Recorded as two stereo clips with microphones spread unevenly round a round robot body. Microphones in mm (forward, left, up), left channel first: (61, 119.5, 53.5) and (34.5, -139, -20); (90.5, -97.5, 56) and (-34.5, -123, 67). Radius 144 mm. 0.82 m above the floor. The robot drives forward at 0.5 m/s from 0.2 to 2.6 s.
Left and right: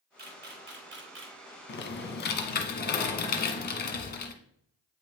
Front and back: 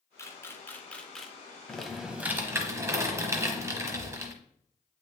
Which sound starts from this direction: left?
Typing on a keyboard, at 1.7 s.